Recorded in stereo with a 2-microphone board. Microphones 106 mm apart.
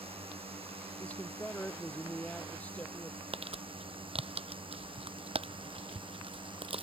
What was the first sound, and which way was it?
A drone, 65° right (ahead or behind).